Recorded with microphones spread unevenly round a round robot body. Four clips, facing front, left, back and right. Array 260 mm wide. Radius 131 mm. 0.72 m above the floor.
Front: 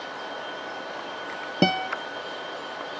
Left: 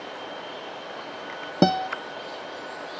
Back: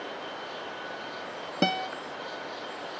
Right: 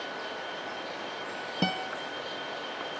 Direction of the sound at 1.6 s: 75° left.